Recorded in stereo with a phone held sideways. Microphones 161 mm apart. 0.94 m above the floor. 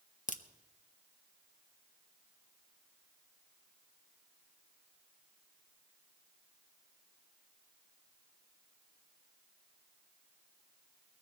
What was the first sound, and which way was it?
A crack, 55° left (ahead or behind).